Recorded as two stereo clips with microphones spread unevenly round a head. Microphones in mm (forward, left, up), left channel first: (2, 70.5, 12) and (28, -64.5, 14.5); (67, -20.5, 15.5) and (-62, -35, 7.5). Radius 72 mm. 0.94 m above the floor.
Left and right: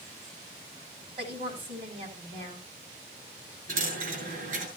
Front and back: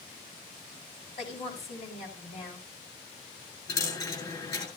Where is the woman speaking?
30° right, 7 m.